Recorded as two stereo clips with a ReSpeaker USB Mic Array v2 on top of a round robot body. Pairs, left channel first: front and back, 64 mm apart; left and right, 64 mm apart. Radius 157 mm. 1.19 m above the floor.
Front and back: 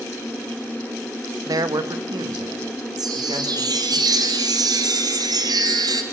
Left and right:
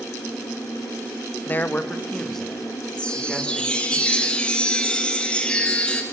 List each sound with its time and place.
1.5 s a man speaking: 150° left, 1.2 m; by 4.0 s 175° right, 4.5 m
3.0 s a chime: 165° left, 2 m